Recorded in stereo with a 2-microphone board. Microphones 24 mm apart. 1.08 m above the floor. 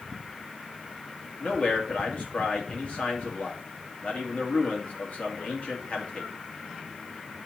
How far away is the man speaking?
About 2 m.